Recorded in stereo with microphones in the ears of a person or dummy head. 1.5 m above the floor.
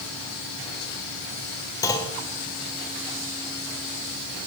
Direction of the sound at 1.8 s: 20° left (ahead or behind).